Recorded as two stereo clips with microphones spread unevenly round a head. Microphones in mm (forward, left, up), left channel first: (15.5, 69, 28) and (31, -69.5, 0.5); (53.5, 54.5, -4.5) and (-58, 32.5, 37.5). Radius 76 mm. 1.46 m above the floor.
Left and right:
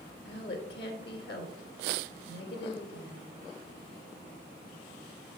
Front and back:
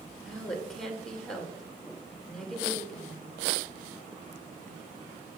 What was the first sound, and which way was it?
A woman speaking, 100° left.